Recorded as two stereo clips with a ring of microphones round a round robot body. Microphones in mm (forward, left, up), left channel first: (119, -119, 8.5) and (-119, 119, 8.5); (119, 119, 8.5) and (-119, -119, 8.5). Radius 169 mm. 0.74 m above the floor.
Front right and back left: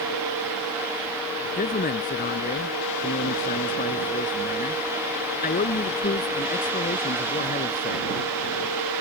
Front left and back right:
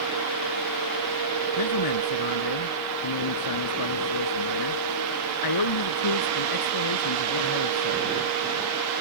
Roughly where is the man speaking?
Ahead.